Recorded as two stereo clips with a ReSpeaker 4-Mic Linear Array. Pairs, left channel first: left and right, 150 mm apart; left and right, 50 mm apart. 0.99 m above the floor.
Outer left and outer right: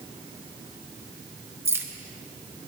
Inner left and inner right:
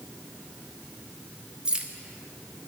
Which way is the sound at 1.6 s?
15° right (ahead or behind).